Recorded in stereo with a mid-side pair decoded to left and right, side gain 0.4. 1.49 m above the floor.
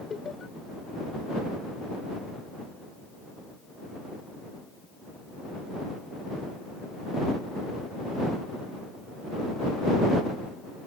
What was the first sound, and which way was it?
Laughter, 45° left.